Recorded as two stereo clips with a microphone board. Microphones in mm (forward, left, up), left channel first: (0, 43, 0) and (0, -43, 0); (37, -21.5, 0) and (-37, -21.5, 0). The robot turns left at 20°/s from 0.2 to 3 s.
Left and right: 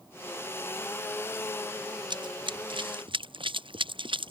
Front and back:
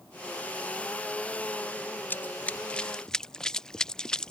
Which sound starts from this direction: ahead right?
Running footsteps, at 2.1 s.